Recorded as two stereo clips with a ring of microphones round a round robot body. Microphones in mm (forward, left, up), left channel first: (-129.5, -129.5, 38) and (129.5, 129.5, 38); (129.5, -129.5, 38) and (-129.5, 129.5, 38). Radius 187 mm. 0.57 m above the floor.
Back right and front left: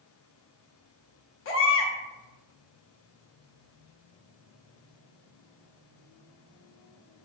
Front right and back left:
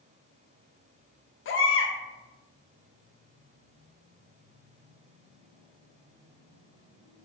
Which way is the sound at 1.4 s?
90° right.